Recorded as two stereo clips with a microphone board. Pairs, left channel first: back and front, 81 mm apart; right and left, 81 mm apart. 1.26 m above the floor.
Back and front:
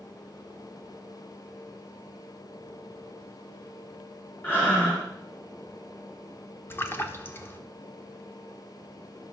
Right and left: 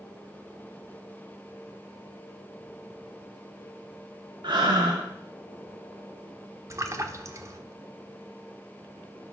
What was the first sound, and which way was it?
Breathing, 115° left.